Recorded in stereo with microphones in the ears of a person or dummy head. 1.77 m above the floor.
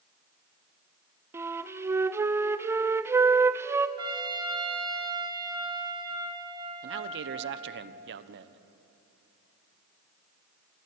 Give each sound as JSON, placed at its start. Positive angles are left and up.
{"t": 1.3, "sound": "a flute", "side_deg": -15, "distance_m": 0.5}
{"t": 4.0, "sound": "a trumpet", "side_deg": -25, "distance_m": 3.0}
{"t": 6.8, "sound": "a man speaking", "side_deg": -60, "distance_m": 1.1}